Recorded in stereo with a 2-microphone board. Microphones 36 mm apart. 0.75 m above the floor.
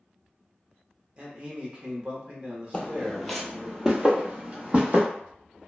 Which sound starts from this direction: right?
A man speaking, at 1.2 s.